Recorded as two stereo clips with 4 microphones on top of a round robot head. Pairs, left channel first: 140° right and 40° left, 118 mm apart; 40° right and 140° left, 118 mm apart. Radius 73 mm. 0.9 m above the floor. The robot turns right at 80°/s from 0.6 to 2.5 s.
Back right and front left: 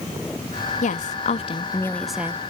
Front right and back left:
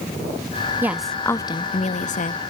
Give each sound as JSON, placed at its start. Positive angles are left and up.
{"t": 0.8, "sound": "a woman speaking", "azimuth_deg": -150, "distance_m": 1.2}